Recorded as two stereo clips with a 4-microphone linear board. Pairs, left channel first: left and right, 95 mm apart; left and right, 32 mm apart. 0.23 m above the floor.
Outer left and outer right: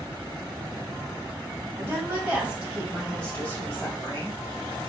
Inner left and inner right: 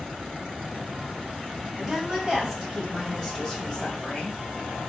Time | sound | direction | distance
1.8 | a woman speaking | 30° right (ahead or behind) | 1.1 m